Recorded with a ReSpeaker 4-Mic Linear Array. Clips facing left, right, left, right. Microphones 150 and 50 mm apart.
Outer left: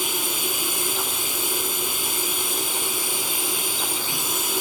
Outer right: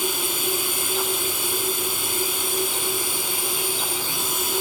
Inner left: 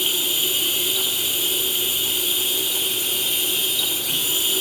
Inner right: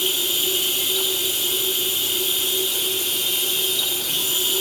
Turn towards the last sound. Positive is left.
turn(degrees=20)  # may be behind; listen again after turning